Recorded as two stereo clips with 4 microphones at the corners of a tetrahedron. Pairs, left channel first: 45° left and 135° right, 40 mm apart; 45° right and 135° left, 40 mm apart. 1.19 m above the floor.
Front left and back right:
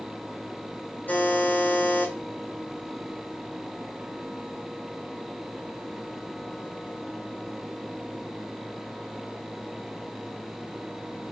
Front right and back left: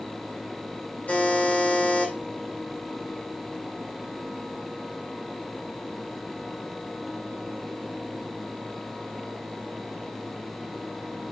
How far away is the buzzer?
About 4 m.